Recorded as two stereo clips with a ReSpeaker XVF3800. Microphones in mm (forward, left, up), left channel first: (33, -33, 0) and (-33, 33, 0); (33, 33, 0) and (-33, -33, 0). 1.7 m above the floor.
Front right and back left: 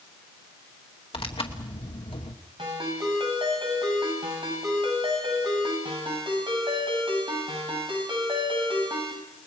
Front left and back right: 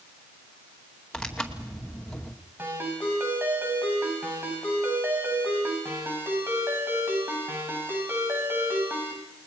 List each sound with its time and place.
1.1 s tearing paper: 40° right, 2.5 m
2.6 s a ringtone: 160° left, 9.5 m